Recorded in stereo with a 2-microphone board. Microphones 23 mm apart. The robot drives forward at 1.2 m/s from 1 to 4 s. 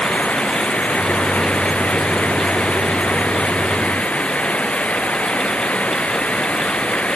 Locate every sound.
0.0 s running water: 80° left; by 7.2 s 75° left (ahead or behind)